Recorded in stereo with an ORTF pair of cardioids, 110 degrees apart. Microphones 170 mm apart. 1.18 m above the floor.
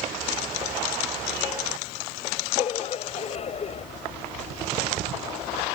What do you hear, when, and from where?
2.6 s laughter: 35° left